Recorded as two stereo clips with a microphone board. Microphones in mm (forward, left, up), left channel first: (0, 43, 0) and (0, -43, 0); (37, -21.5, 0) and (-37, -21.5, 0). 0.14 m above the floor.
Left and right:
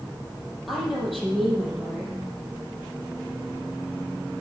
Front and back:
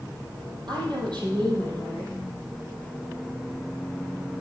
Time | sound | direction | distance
0.7 | a woman speaking | straight behind | 4.5 m